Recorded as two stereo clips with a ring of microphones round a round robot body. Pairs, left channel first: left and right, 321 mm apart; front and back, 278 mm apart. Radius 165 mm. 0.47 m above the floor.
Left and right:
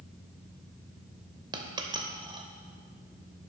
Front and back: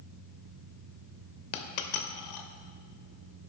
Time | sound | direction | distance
1.5 | a dropped coin | 15° right | 0.7 m